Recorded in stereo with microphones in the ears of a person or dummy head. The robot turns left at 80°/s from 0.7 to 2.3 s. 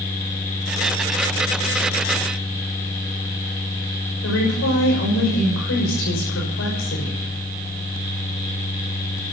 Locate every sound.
4.2 s a woman speaking: 65° left (ahead or behind), 6.5 m